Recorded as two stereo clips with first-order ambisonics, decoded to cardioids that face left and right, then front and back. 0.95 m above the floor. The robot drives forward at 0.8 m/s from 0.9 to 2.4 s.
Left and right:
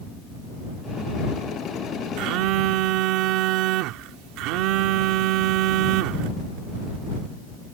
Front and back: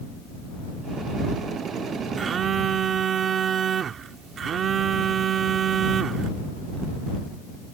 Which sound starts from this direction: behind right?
A phone buzzing, at 2.2 s.